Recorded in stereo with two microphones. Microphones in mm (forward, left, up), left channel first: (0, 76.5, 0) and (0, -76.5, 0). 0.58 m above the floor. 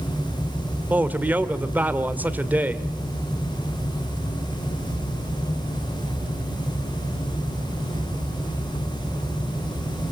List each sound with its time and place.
0.9 s a man speaking: 10° right (ahead or behind), 1.8 m